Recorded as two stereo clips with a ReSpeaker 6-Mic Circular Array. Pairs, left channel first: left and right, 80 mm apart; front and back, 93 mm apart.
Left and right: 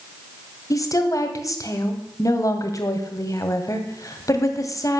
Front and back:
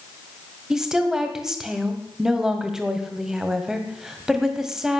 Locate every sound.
0.7 s a woman speaking: 100° left, 1.8 m